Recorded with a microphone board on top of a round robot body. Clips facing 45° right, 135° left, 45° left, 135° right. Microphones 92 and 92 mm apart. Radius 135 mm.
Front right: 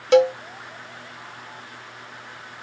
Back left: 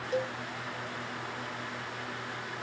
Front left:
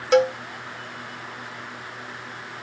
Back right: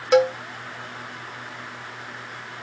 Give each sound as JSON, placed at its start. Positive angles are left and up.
{"t": 0.1, "sound": "a cowbell", "azimuth_deg": -50}